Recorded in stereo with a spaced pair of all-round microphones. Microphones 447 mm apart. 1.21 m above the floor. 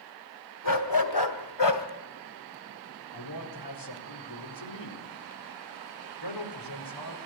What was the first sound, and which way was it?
A dog barking, 45° left (ahead or behind).